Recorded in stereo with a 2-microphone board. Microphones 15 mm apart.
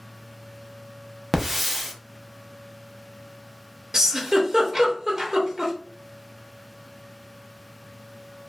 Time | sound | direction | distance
1.3 | a hiss | 10° right (ahead or behind) | 0.5 m
3.9 | a giggle | 30° right (ahead or behind) | 0.7 m